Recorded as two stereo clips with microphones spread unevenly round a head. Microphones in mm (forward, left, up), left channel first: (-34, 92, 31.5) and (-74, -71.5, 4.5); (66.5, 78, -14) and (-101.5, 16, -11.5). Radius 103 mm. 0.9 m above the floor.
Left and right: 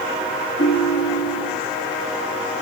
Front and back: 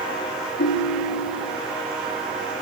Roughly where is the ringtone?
Ahead left.